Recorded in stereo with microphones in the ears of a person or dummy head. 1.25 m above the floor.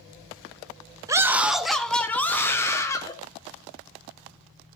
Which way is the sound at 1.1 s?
15° right (ahead or behind).